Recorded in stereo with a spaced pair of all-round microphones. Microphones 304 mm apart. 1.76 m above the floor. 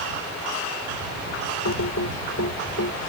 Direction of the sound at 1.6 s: 65° left (ahead or behind).